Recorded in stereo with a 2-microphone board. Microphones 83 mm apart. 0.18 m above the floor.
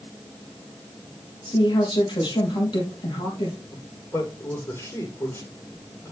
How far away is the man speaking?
About 6.5 m.